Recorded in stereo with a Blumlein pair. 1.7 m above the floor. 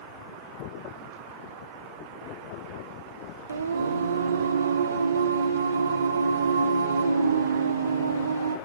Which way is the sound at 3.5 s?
70° right.